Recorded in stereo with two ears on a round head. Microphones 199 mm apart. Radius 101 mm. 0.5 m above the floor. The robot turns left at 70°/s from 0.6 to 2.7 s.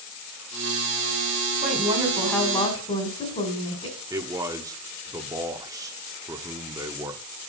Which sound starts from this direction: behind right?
A woman speaking, at 1.6 s.